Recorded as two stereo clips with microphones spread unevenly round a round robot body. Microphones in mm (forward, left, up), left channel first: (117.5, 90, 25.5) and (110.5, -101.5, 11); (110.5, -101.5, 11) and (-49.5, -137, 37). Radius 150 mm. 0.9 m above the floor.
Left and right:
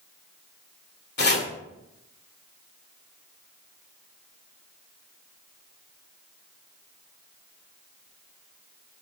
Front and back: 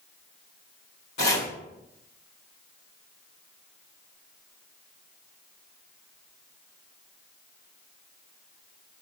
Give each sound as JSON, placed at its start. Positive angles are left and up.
{"t": 1.2, "sound": "chopping", "azimuth_deg": 55, "distance_m": 2.0}